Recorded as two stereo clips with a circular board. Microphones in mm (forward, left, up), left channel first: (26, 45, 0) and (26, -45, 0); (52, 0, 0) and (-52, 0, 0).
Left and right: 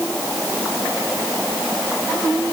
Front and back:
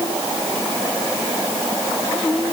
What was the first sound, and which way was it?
Only background noise.